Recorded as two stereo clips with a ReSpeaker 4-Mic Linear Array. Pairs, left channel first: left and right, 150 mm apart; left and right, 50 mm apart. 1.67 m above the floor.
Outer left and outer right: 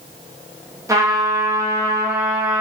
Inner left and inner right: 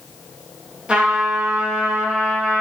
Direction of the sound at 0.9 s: 20° right (ahead or behind).